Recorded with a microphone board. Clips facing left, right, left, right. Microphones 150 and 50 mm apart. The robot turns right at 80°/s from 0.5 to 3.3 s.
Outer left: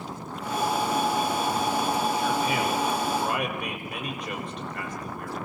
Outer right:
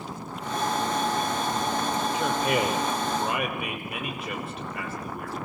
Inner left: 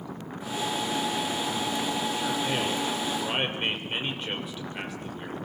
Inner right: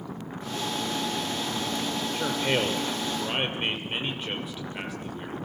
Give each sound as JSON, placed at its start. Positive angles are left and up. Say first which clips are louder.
{"t": 2.1, "sound": "a man speaking", "louder": "outer right 1 dB, inner right 2 dB", "azimuth_deg": -100, "distance_m": 5.5}